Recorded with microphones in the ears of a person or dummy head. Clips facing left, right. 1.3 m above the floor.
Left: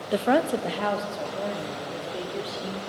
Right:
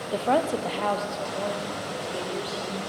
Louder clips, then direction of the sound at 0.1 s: Left 2 dB; 30° left (ahead or behind).